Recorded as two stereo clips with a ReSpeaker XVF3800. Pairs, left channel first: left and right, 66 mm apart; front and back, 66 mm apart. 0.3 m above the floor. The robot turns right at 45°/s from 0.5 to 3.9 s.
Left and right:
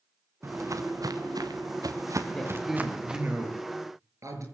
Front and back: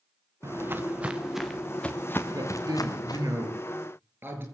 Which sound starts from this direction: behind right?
Footsteps, at 0.4 s.